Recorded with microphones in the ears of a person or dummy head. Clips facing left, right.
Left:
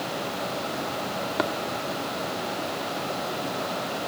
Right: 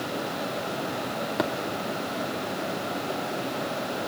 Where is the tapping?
Centre (ahead or behind), 1.3 m.